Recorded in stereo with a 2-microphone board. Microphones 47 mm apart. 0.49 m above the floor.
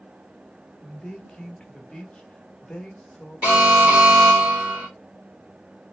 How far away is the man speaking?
About 0.8 m.